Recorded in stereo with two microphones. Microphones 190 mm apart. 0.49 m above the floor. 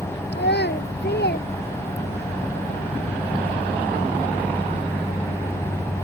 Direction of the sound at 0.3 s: 65° left (ahead or behind).